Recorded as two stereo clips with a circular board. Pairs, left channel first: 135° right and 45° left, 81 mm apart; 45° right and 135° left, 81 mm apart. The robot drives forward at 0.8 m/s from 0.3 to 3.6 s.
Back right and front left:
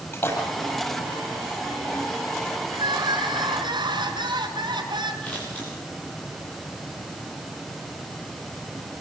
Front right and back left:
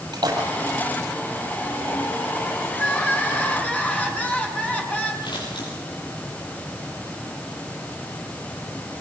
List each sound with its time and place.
0.1 s a splash: 170° left, 7.5 m
2.7 s crying: 25° left, 5.5 m
5.2 s scissors: 60° right, 9.5 m